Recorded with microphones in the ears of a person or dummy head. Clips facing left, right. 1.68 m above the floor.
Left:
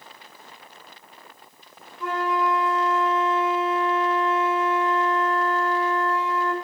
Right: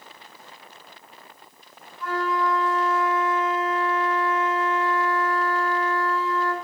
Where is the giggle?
No giggle in this recording.